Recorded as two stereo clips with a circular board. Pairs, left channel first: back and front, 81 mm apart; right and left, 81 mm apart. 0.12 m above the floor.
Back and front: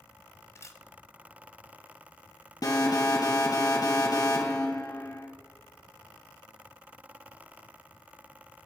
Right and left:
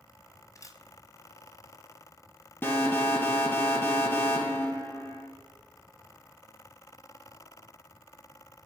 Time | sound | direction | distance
0.6 | a camera shutter | 130° right | 1.0 m
2.6 | an alarm | 150° right | 3.5 m